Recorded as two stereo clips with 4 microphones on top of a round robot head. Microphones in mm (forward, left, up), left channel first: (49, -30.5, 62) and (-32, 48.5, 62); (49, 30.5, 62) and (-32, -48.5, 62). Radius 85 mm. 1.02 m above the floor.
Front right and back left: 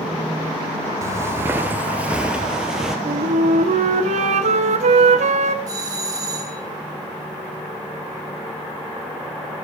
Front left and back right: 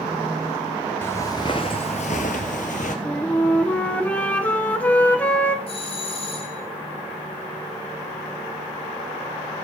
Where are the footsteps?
100° left, 1.0 m; by 3.0 s 50° left, 1.6 m.